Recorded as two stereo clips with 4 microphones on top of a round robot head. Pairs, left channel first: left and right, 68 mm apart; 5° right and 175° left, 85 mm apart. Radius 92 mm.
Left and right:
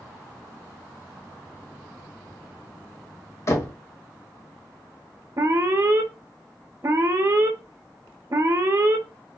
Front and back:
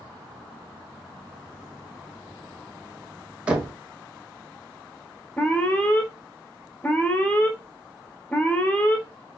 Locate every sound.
3.5 s knocking: 105° left, 1.0 m
5.4 s an alarm: 65° right, 0.6 m